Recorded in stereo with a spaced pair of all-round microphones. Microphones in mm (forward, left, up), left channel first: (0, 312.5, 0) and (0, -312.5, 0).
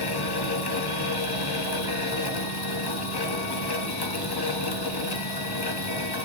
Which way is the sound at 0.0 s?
40° left (ahead or behind).